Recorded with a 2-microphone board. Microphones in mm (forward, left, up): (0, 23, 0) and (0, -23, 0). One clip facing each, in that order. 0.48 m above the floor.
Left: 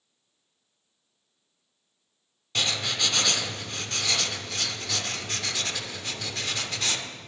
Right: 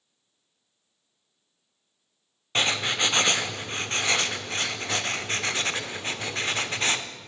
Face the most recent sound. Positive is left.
turn(degrees=-35)  # may be behind; listen again after turning